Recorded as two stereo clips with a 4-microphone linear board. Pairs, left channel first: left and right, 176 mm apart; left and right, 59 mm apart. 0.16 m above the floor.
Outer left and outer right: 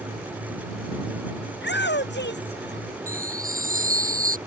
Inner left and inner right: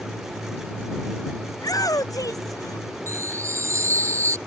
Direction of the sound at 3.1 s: 50° right (ahead or behind).